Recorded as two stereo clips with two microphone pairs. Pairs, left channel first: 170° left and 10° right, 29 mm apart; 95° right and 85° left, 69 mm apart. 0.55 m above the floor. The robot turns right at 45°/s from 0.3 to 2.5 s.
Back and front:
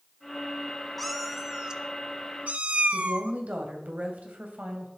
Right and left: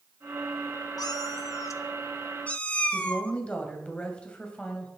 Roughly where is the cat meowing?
Right.